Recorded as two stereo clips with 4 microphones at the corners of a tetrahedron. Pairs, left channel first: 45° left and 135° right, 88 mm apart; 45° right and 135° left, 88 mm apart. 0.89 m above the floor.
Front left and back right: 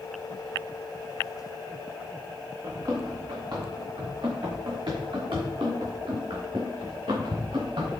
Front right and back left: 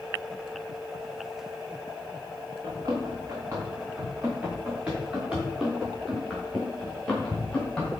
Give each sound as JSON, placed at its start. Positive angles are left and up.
{"t": 2.6, "sound": "running footsteps", "azimuth_deg": 180, "distance_m": 3.5}